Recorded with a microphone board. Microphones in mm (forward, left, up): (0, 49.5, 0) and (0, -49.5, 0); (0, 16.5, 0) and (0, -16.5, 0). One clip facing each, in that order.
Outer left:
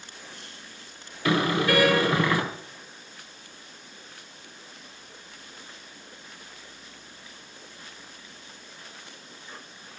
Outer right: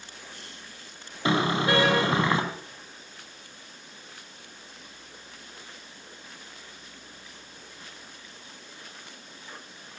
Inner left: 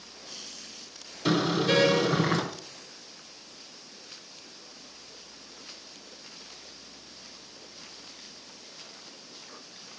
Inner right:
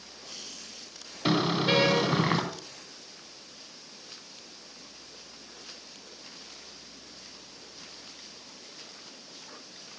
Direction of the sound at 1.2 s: 25° right (ahead or behind).